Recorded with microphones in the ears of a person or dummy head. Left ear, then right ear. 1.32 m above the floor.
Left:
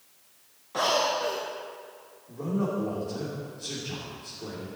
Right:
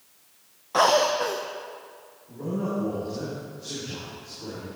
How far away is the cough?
About 0.7 m.